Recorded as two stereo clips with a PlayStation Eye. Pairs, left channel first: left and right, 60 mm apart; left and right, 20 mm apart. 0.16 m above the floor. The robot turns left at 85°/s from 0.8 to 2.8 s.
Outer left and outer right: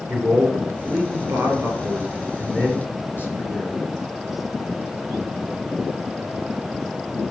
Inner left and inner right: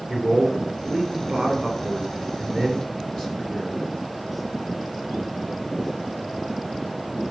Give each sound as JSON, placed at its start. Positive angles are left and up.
{"t": 0.1, "sound": "a man speaking", "azimuth_deg": -50, "distance_m": 2.5}